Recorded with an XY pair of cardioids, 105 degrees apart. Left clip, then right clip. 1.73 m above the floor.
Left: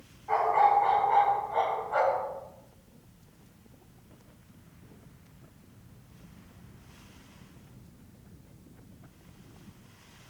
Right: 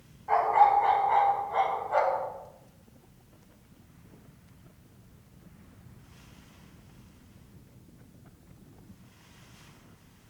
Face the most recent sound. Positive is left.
turn(degrees=-40)